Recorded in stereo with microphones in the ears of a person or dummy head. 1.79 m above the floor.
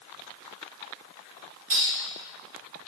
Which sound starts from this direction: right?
A clink, at 1.7 s.